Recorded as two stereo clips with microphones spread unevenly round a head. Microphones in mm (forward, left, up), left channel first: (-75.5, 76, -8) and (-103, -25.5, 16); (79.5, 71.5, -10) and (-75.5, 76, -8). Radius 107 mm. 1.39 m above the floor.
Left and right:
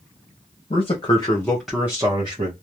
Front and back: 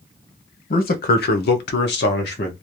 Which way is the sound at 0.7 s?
30° left.